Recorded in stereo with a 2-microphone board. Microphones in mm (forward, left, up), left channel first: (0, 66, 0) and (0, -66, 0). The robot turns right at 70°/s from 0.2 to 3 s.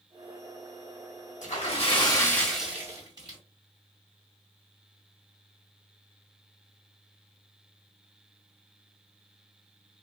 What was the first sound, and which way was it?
A splash, 100° left.